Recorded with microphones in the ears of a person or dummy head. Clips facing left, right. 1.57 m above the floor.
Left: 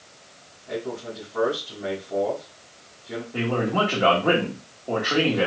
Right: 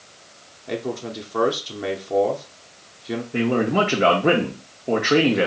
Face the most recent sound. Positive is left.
turn(degrees=-35)  # may be behind; listen again after turning